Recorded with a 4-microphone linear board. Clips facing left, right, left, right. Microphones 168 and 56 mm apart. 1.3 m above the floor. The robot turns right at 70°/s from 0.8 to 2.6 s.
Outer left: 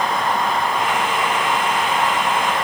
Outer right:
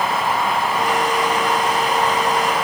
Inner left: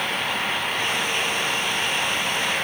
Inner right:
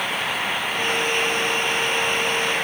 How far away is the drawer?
No drawer in this recording.